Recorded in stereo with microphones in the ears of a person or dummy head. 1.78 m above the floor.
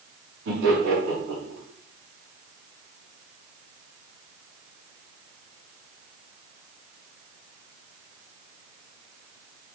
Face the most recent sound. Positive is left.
turn(degrees=-85)